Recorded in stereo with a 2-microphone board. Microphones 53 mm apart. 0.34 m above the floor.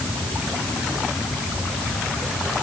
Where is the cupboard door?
No cupboard door in this recording.